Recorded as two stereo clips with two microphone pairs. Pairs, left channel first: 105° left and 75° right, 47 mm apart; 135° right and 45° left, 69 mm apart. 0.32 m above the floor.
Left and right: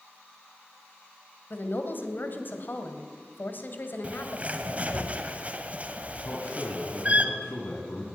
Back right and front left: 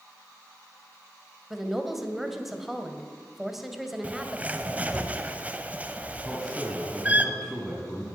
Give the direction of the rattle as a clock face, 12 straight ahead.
No rattle in this recording.